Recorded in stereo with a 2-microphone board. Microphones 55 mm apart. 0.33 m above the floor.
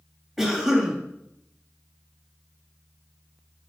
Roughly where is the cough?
Centre.